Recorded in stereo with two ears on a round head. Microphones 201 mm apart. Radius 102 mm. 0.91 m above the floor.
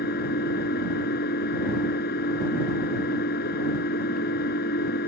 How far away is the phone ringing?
I don't hear a phone ringing.